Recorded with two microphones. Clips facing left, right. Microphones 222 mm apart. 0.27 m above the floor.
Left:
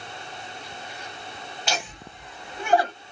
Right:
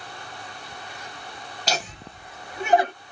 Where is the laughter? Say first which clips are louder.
Right 2 dB; 40° right (ahead or behind), 1.5 m; by 2.9 s 15° right (ahead or behind), 1.3 m.